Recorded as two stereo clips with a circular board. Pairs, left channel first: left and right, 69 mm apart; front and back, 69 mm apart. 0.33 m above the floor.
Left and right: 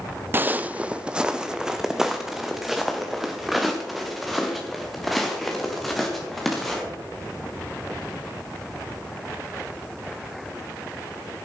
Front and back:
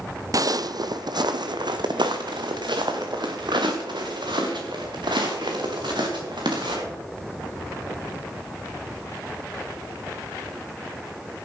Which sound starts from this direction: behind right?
Footsteps, at 0.3 s.